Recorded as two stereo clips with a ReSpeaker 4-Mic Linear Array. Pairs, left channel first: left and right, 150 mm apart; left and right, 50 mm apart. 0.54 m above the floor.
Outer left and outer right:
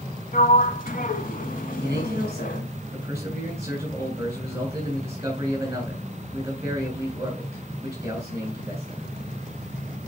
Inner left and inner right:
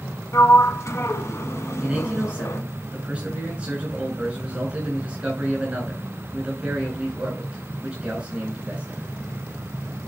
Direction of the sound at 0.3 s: 70° left (ahead or behind).